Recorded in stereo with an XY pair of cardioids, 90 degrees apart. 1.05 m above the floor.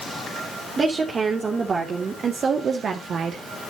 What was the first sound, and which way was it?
A woman speaking, 40° right.